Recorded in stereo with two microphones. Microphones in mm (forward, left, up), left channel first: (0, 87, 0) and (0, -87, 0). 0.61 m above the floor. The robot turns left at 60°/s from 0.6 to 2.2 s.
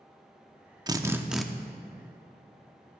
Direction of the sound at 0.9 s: 150° right.